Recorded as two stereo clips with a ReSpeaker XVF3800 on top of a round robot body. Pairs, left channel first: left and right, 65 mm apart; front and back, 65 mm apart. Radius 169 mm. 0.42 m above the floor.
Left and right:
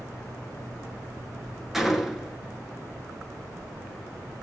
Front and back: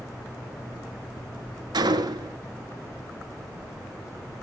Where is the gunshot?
Straight behind, 1.5 m.